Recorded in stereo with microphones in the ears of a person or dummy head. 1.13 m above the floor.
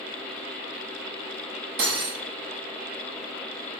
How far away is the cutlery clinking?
About 0.8 m.